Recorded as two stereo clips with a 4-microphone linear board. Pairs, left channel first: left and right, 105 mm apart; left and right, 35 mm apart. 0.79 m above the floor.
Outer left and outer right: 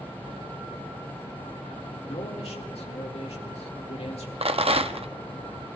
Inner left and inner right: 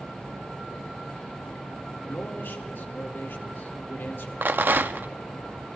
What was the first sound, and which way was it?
A man speaking, 75° left (ahead or behind).